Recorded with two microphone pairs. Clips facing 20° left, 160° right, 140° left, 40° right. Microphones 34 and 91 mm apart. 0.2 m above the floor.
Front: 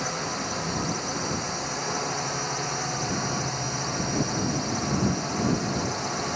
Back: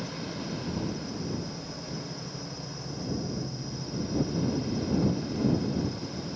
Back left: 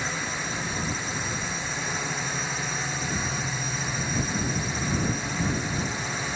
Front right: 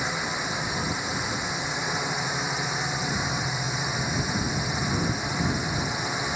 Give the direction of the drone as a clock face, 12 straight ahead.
11 o'clock.